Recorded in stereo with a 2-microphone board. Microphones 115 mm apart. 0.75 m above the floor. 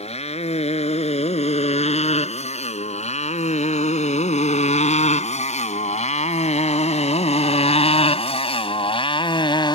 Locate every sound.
0.0 s a motorcycle: 65° left (ahead or behind); by 9.7 s 45° left (ahead or behind)